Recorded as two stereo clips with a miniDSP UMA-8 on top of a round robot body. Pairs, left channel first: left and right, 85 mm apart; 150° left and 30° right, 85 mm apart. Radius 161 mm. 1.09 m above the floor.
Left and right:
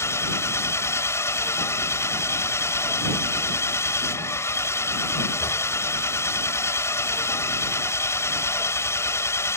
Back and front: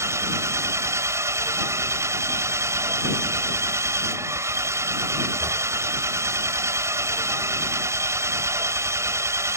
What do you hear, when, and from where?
0.0 s an engine running: 30° left